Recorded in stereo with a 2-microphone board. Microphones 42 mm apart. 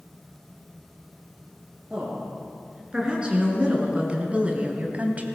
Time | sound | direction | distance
1.9 | a woman speaking | 25° right (ahead or behind) | 5 m